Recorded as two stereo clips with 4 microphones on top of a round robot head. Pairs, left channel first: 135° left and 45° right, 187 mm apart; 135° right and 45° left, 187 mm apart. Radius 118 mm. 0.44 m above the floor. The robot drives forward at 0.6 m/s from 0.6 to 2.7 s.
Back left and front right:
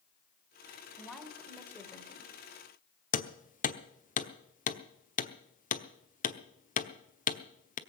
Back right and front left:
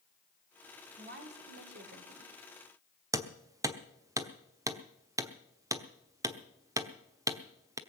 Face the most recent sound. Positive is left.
turn(degrees=110)